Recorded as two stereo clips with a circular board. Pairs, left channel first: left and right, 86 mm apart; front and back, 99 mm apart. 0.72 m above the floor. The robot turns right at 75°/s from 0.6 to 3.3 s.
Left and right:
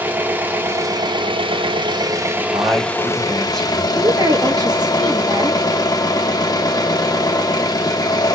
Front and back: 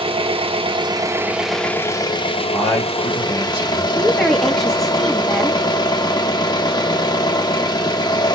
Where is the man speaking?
55° right, 2.5 m; by 3.9 s 5° left, 2.5 m.